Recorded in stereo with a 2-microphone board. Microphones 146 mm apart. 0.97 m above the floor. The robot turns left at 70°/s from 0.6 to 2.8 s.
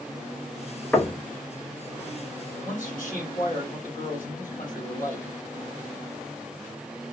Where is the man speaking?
75° left (ahead or behind), 3.5 m; by 5.3 s 70° left (ahead or behind), 3.5 m.